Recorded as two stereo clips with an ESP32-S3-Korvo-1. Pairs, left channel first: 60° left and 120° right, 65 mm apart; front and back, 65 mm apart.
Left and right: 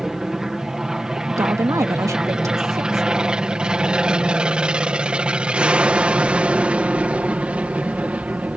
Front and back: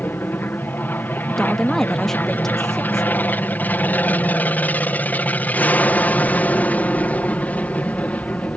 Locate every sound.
0.0 s an aircraft: 40° right; by 8.6 s 60° right
1.2 s a woman speaking: 85° right